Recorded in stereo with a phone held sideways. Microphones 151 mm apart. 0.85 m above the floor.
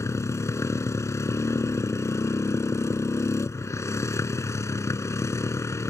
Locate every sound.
0.0 s a motorcycle: 20° left (ahead or behind)